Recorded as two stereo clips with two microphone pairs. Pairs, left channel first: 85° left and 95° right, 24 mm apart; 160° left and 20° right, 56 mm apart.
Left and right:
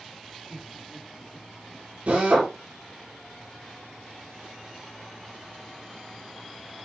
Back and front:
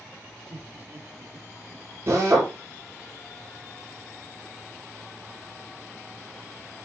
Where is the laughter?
5° right, 3 m.